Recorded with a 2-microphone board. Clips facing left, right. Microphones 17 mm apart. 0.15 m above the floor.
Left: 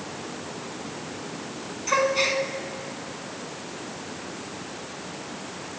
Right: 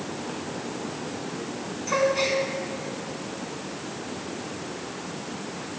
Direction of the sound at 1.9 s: 20° left (ahead or behind).